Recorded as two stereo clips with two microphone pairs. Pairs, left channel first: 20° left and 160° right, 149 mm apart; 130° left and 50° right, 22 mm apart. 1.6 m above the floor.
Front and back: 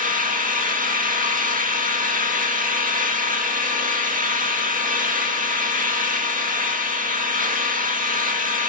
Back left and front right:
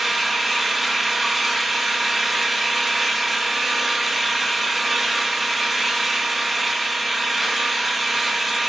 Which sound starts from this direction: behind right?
An engine running, at 0.0 s.